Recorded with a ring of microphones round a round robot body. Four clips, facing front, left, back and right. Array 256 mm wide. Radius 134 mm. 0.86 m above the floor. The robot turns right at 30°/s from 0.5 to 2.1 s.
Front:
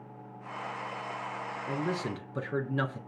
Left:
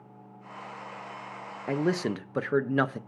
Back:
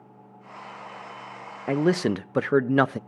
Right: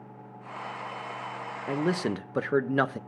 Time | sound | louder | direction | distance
1.7 | a man speaking | left 1 dB, back 12 dB | 165° left | 0.5 m